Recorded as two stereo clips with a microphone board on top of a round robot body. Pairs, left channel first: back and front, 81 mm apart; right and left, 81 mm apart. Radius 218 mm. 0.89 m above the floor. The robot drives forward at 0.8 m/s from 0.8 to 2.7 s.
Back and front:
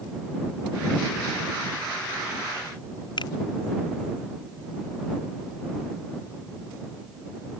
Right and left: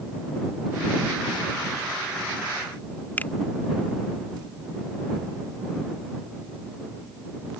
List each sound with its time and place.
3.2 s a finger snap: 160° right